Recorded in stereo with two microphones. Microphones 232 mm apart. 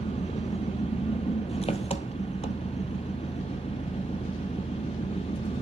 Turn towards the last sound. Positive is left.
turn(degrees=25)  # may be behind; listen again after turning